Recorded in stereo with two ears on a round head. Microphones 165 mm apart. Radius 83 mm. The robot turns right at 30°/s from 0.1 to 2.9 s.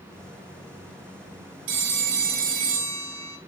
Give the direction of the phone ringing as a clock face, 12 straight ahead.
3 o'clock.